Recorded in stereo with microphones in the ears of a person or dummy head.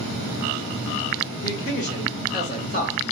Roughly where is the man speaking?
Left.